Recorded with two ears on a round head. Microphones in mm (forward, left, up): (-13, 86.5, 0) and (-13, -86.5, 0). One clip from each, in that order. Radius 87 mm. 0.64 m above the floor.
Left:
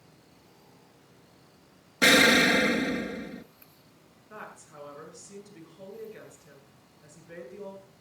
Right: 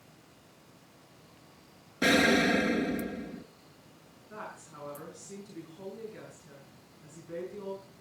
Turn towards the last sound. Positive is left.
turn(degrees=10)  # may be behind; listen again after turning